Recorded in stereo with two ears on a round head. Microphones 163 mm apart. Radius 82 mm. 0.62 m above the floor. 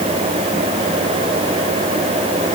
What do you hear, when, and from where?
Only background noise.